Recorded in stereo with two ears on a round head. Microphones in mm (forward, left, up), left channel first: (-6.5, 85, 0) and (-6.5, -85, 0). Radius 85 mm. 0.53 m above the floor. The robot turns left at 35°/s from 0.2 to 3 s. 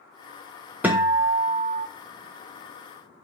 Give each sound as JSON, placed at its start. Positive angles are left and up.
{"t": 0.8, "sound": "a guitar", "azimuth_deg": -10, "distance_m": 0.7}